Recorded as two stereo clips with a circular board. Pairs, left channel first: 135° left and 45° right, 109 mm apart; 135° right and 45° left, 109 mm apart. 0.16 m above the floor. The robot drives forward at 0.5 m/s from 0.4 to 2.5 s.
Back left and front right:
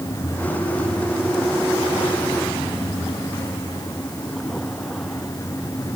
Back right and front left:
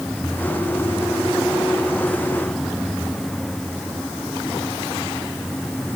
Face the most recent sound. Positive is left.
No sound to turn to.